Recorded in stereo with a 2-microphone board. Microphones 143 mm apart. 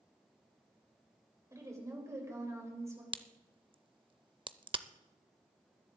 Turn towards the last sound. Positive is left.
turn(degrees=-35)  # may be behind; listen again after turning